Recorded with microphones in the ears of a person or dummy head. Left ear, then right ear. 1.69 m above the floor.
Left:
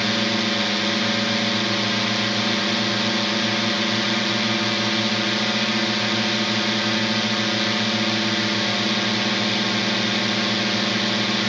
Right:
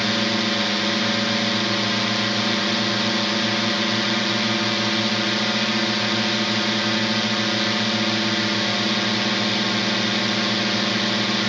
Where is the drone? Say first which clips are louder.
Even; centre (ahead or behind).